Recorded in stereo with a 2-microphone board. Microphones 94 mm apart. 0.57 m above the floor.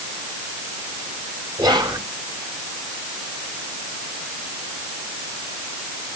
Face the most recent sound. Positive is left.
turn(degrees=-50)  # may be behind; listen again after turning